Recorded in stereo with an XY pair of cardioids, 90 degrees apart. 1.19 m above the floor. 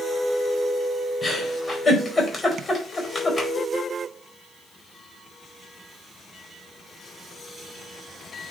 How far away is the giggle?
About 4.5 m.